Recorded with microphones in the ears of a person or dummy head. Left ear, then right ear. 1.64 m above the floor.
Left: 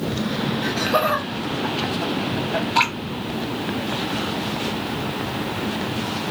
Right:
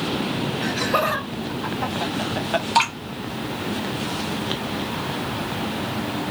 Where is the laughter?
Centre (ahead or behind), 1.4 m; by 2.7 s 45° right (ahead or behind), 0.6 m.